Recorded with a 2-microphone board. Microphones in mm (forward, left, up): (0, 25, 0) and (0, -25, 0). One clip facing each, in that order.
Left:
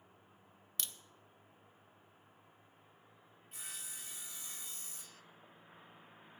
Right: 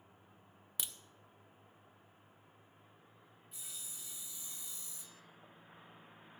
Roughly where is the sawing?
Left.